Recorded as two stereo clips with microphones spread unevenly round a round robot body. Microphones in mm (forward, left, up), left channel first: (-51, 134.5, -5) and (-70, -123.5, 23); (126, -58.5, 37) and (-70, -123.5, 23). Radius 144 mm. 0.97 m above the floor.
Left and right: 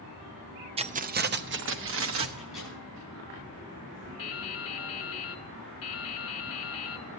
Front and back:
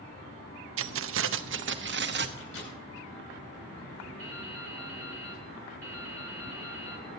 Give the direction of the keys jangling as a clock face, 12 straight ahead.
5 o'clock.